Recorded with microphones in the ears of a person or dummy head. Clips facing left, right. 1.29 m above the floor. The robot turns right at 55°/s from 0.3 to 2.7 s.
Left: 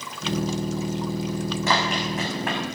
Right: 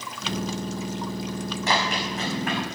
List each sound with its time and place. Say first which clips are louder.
1.7 s running footsteps: even; 75° left (ahead or behind), 7 m; by 2.6 s 50° left (ahead or behind), 7 m